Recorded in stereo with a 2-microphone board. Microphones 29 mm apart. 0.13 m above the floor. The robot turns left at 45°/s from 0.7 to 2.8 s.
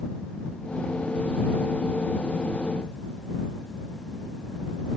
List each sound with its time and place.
Only background noise.